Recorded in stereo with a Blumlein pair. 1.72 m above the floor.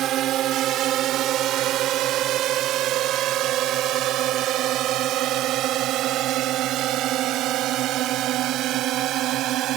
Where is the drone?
30° right; by 9.8 s 35° right.